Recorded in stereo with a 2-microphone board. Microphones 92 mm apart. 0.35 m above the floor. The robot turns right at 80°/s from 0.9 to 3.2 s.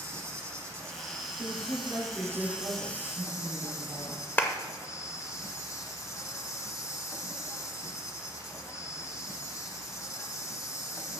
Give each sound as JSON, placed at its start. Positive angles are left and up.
{"t": 0.0, "sound": "an insect", "azimuth_deg": -145, "distance_m": 1.1}
{"t": 1.4, "sound": "a woman speaking", "azimuth_deg": -65, "distance_m": 4.0}
{"t": 4.4, "sound": "a clap", "side_deg": 20, "distance_m": 0.8}